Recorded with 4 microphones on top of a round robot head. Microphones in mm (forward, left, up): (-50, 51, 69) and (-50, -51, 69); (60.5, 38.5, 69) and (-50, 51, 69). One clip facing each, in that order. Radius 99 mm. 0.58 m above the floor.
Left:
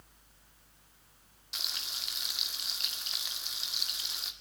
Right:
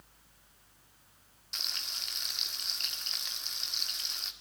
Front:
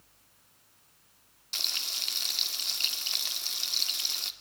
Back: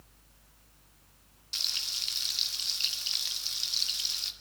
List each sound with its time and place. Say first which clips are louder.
1.5 s frying: left 1 dB, front 3 dB; 5° left, 2 m